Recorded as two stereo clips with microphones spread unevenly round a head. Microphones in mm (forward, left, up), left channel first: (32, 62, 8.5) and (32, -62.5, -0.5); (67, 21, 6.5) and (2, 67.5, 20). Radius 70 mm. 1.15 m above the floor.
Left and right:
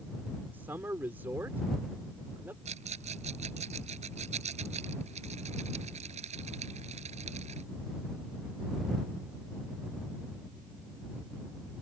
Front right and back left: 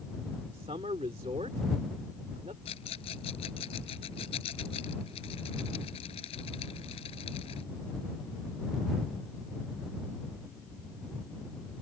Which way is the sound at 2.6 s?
55° right.